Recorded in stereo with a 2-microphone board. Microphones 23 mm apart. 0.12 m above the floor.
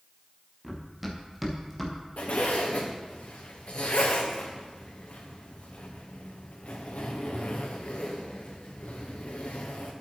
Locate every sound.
0.6 s running footsteps: 5° right (ahead or behind), 3.5 m; by 1.9 s 5° left (ahead or behind), 3 m
2.2 s a zipper: 85° left, 2.5 m